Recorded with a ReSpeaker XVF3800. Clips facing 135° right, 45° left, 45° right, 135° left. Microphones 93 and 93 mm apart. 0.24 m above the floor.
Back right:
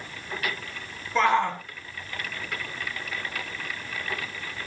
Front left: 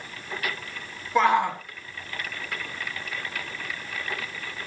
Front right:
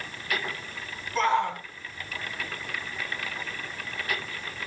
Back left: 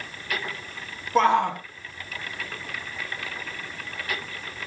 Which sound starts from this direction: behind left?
A shout, at 1.1 s.